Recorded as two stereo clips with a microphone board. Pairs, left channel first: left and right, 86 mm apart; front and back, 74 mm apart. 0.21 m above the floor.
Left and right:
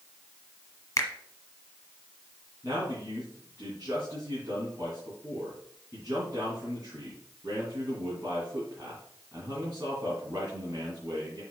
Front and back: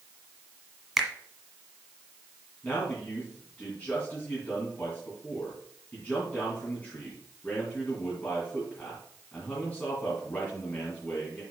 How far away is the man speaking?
About 2.5 m.